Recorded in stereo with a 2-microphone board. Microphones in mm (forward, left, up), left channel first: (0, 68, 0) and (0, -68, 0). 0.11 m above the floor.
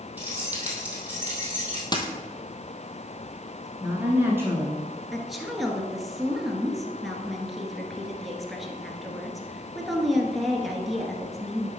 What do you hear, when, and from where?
0.2 s keys jangling: 10° right (ahead or behind), 2.5 m
1.9 s a dropped coin: 30° left (ahead or behind), 1.1 m
3.8 s a woman speaking: 15° right (ahead or behind), 1.2 m
5.1 s a woman speaking: centre (ahead or behind), 1.5 m